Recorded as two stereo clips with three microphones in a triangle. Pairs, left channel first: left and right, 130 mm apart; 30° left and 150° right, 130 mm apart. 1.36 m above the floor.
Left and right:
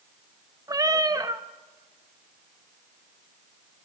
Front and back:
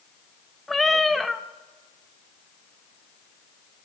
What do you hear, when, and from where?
0.7 s a cat meowing: 55° right, 0.6 m